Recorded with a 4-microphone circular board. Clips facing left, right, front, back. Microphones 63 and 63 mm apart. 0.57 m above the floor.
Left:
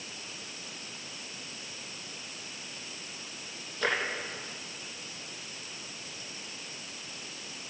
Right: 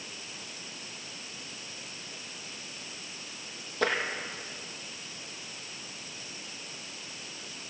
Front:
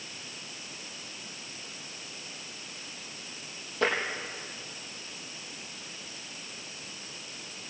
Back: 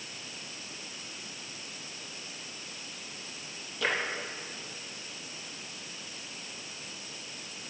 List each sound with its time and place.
3.8 s tapping: 55° right, 5 m